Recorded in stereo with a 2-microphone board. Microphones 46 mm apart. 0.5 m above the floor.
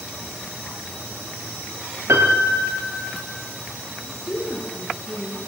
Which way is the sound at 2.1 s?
65° right (ahead or behind).